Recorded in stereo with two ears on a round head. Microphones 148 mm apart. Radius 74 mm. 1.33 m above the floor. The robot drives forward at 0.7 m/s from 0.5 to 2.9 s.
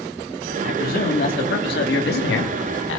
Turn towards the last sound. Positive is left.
turn(degrees=75)  # may be behind; listen again after turning